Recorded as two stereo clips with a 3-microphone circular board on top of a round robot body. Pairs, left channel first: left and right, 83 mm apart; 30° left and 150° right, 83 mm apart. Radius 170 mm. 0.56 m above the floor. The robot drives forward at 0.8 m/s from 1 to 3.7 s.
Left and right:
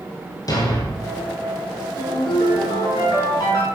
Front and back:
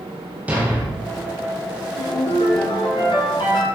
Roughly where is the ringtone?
Ahead left.